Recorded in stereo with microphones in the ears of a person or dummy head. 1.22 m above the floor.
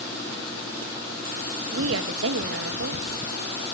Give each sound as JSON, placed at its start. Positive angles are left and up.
{"t": 1.7, "sound": "a woman speaking", "side_deg": -70, "distance_m": 1.8}